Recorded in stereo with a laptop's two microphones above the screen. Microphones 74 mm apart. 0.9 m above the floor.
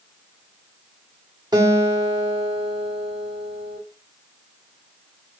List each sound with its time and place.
1.5 s a guitar: 85° right, 1.4 m